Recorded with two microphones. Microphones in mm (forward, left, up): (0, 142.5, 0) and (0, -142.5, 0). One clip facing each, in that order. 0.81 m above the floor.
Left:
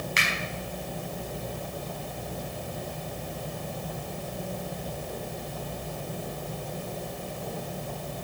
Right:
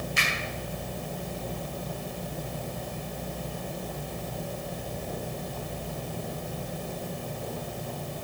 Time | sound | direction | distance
0.2 | a finger snap | 85° left | 5.5 m